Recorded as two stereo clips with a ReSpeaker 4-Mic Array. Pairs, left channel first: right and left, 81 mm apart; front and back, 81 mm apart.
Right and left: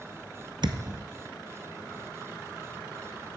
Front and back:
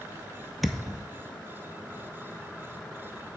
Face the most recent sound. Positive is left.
turn(degrees=90)